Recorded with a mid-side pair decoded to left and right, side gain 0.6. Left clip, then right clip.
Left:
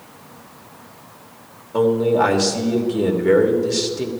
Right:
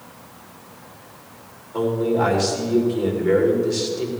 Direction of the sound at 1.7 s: 55° left.